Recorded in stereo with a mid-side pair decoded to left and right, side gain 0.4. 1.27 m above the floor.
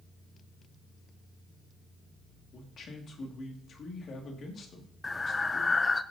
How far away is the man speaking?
About 2 m.